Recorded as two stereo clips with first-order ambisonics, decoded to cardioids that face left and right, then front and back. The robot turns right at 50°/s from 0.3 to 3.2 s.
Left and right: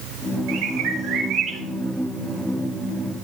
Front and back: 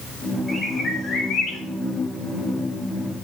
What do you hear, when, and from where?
0.5 s a bird: 85° right, 3.5 m; by 1.6 s 30° right, 3.5 m